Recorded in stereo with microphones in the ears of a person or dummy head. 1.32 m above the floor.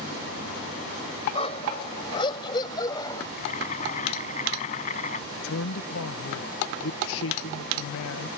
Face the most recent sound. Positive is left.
turn(degrees=70)  # may be behind; listen again after turning